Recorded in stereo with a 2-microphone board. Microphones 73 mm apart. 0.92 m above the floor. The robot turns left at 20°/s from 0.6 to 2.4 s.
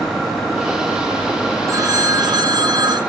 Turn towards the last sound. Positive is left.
turn(degrees=-65)  # may be behind; listen again after turning